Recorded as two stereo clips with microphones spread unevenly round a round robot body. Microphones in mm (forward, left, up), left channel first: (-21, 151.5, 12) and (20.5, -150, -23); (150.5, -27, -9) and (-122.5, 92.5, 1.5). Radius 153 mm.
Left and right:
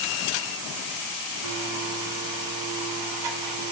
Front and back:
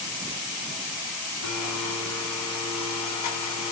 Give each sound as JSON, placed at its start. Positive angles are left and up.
{"t": 1.4, "sound": "a blender", "azimuth_deg": -65, "distance_m": 3.5}